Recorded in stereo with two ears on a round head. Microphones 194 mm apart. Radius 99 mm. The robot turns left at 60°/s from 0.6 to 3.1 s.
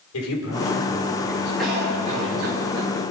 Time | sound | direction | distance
0.1 | a man speaking | 105° left | 5.5 m
1.6 | a cough | straight ahead | 4 m